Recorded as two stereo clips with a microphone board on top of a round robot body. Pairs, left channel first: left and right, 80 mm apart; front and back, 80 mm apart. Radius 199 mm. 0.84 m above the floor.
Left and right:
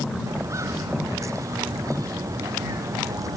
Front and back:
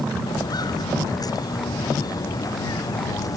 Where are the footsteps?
35° right; by 3.4 s 40° right.